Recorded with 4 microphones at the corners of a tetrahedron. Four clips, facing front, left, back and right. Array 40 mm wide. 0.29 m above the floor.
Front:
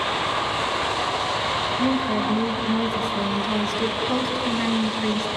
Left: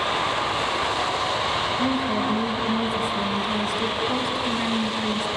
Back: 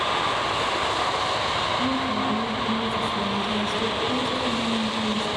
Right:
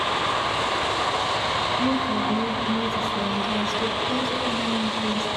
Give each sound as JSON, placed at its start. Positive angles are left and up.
{"t": 1.8, "sound": "a woman speaking", "azimuth_deg": 20, "distance_m": 2.5}